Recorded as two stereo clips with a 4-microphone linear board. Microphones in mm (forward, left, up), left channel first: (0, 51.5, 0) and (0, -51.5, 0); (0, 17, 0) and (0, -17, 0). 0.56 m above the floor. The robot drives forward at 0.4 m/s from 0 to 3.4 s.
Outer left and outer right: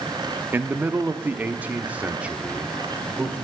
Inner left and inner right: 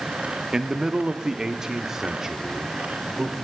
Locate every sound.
0.5 s a man speaking: 20° right (ahead or behind), 0.6 m; by 3.4 s 10° right (ahead or behind), 1.4 m